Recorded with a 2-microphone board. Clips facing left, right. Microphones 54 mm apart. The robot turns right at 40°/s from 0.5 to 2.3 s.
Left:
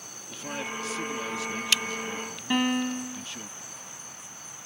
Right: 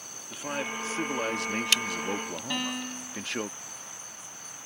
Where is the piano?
25° left (ahead or behind).